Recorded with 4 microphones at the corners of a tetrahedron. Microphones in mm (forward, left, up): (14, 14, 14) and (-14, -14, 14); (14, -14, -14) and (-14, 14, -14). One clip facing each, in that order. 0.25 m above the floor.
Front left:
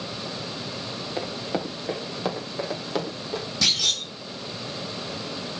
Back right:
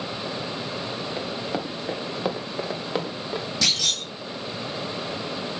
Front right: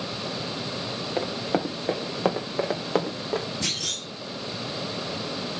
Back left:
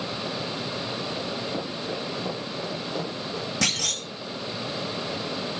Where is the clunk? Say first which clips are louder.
Front left 1 dB, back left 3 dB; 140° left, 6 m.